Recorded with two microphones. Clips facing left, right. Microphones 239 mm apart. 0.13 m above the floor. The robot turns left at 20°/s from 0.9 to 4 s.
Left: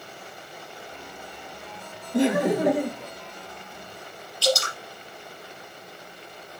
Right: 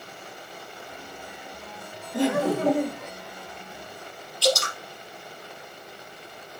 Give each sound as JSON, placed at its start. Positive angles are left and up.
{"t": 2.1, "sound": "laughter", "side_deg": 20, "distance_m": 1.6}
{"t": 4.4, "sound": "dripping", "side_deg": -60, "distance_m": 3.0}